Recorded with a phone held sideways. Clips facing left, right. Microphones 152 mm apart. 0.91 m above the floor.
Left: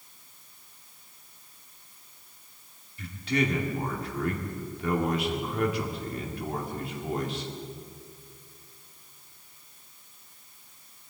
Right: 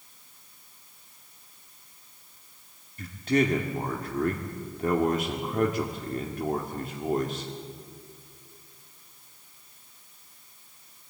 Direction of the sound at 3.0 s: 45° right (ahead or behind).